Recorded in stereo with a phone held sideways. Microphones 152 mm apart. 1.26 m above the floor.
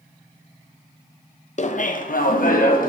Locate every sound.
1.6 s laughter: 50° left (ahead or behind), 0.5 m; by 2.9 s 65° left (ahead or behind), 1.2 m